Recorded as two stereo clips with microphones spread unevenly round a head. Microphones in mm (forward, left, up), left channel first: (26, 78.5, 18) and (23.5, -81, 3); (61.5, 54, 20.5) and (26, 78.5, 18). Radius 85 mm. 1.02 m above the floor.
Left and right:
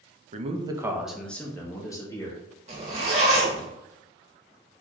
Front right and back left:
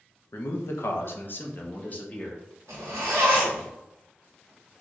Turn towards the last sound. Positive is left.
turn(degrees=-150)